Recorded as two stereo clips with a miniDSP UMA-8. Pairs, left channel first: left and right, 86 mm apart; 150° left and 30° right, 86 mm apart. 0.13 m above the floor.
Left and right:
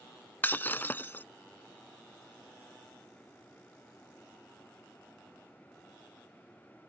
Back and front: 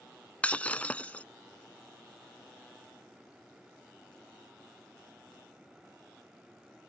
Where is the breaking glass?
105° left.